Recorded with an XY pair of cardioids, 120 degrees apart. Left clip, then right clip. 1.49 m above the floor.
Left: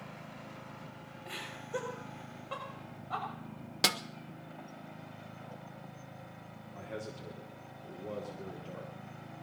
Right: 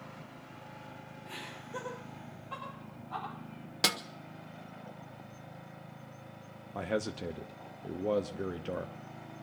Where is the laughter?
35° left, 6.5 m; by 3.3 s 45° left, 6.5 m.